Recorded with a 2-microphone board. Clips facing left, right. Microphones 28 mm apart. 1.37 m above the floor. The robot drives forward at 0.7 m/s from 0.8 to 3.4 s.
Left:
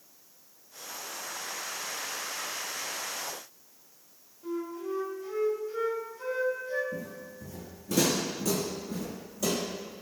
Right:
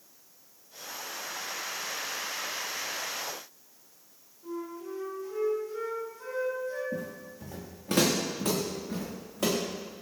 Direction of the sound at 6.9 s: 60° right (ahead or behind).